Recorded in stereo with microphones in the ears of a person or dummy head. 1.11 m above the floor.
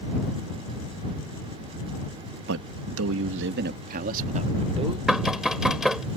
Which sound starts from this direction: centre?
Knocking, at 5.1 s.